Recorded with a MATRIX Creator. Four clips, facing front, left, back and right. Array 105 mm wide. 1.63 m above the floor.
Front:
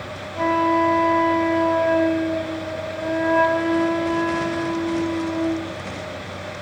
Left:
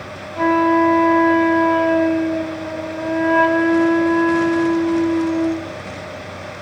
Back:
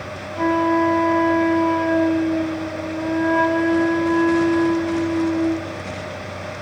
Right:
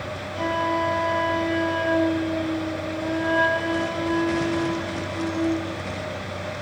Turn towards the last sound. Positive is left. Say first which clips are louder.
# left 10 dB, back 1 dB
turn(degrees=85)